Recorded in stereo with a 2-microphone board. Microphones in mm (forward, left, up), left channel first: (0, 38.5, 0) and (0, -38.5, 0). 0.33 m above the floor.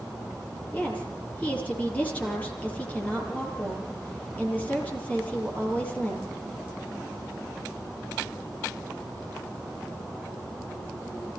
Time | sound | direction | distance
0.7 | a woman speaking | 20° left (ahead or behind) | 8.5 m